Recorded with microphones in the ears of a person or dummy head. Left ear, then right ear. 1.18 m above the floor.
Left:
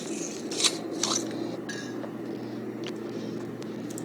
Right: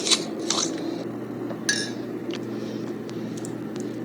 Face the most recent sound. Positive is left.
turn(degrees=-60)  # may be behind; listen again after turning